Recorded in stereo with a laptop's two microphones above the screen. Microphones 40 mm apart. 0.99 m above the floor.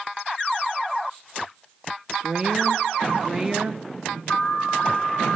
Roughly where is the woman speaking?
Centre.